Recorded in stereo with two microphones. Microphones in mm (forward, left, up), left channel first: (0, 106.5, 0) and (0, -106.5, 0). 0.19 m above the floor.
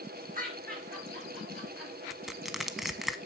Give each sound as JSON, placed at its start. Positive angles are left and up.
{"t": 0.3, "sound": "laughter", "side_deg": -40, "distance_m": 3.5}
{"t": 2.1, "sound": "crushing", "side_deg": 0, "distance_m": 0.6}